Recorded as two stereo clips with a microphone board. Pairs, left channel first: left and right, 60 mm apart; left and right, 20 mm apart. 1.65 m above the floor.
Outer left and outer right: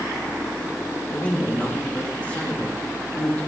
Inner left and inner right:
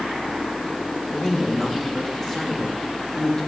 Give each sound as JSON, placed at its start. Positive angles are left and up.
{"t": 1.1, "sound": "a man speaking", "side_deg": 25, "distance_m": 2.0}